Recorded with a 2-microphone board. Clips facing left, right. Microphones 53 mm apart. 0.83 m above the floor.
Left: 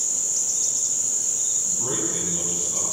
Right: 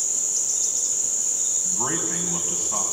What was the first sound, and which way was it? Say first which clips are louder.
A man speaking: right 1 dB; 55° right (ahead or behind).